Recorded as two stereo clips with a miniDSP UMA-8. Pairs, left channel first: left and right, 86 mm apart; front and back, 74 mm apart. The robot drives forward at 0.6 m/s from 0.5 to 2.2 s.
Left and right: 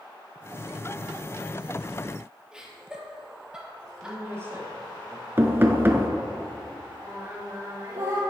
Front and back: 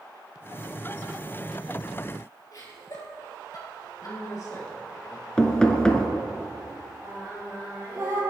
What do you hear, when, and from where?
2.5 s laughter: 10° right, 3 m
4.0 s a man speaking: 35° right, 2.5 m
5.4 s knocking: 65° right, 0.9 m
7.0 s singing: 135° right, 3.5 m